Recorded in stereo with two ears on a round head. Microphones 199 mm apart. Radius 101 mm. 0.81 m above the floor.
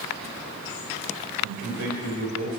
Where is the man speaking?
65° right (ahead or behind), 3.5 m; by 2.6 s 70° right (ahead or behind), 4 m.